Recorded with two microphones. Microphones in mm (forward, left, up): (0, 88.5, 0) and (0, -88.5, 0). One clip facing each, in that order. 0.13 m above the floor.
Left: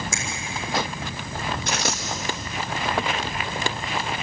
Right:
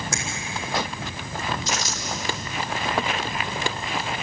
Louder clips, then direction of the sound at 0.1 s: Right 1 dB; 70° right (ahead or behind).